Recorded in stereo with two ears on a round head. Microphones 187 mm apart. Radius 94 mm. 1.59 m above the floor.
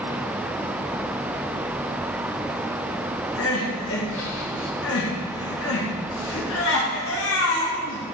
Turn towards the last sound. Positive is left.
turn(degrees=70)  # may be behind; listen again after turning